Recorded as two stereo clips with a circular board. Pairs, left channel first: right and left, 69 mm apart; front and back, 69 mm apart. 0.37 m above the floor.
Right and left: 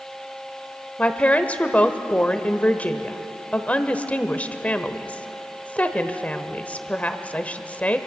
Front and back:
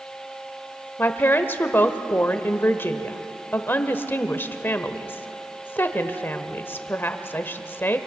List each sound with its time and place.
1.0 s a woman speaking: 35° right, 1.2 m